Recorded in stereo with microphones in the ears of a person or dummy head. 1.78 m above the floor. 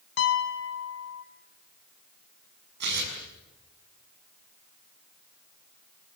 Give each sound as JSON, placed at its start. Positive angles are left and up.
{"t": 0.2, "sound": "a piano", "side_deg": 60, "distance_m": 1.8}
{"t": 2.8, "sound": "tearing paper", "side_deg": -60, "distance_m": 7.0}